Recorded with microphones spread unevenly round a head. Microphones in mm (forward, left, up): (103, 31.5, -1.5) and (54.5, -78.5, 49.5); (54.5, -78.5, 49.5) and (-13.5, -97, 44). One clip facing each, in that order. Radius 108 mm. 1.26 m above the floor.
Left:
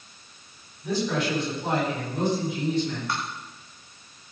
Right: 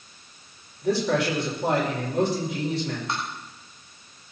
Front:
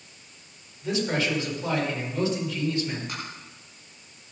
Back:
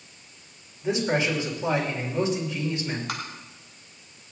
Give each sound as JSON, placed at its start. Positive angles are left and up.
{"t": 0.8, "sound": "a man speaking", "azimuth_deg": -95, "distance_m": 5.5}
{"t": 3.1, "sound": "tapping", "azimuth_deg": 170, "distance_m": 1.9}